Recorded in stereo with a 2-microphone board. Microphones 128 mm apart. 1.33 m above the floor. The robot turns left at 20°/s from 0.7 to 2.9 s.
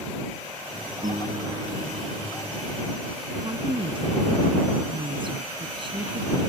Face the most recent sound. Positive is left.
turn(degrees=-40)  # may be behind; listen again after turning